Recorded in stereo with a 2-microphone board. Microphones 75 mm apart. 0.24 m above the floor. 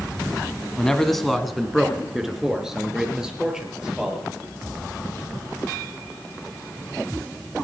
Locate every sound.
0.8 s a man speaking: 10° left (ahead or behind), 1.4 m; by 4.2 s 10° right (ahead or behind), 5 m